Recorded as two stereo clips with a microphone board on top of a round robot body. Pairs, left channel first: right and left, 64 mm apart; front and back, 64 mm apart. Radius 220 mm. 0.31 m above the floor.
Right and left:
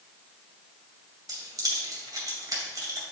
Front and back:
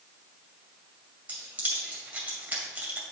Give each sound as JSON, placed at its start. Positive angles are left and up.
{"t": 1.3, "sound": "keys jangling", "azimuth_deg": 110, "distance_m": 2.5}